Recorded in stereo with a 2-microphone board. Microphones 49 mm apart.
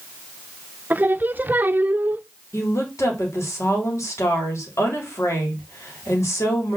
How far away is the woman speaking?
About 3.5 m.